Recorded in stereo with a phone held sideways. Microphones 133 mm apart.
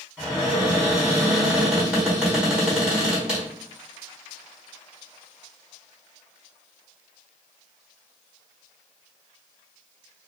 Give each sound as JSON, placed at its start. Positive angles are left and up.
{"t": 0.2, "sound": "a cupboard door", "side_deg": -5, "distance_m": 1.3}